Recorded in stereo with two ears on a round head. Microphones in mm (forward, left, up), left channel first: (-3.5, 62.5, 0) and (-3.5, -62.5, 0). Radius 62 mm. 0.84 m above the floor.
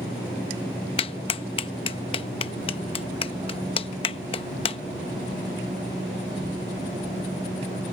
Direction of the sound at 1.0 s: 40° left (ahead or behind).